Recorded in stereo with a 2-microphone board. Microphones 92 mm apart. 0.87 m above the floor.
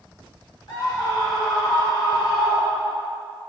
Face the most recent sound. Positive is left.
turn(degrees=65)  # may be behind; listen again after turning